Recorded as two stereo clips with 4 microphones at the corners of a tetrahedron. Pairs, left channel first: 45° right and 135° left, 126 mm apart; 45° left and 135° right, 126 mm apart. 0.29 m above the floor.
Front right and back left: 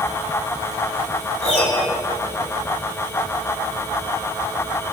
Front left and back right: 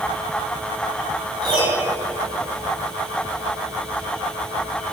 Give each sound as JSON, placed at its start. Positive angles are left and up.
{"t": 1.4, "sound": "a piano", "azimuth_deg": -80, "distance_m": 2.5}